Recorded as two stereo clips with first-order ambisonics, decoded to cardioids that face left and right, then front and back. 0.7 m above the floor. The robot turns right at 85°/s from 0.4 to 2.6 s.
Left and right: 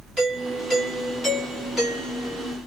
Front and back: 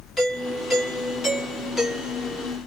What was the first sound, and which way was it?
A doorbell, 70° right.